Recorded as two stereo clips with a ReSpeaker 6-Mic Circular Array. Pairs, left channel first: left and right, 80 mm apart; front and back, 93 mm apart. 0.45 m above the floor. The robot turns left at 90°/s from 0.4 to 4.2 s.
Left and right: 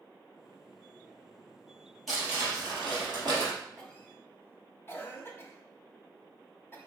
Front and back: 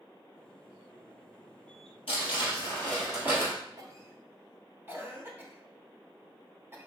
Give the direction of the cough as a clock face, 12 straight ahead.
6 o'clock.